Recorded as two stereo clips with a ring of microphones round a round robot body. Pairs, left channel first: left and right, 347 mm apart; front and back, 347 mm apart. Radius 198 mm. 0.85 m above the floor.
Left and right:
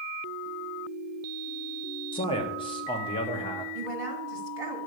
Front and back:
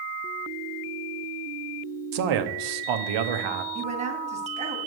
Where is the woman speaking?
110° right, 2.0 m.